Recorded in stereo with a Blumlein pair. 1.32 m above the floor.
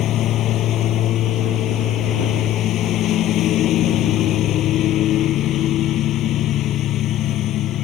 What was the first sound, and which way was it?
A lawn mower, 30° left.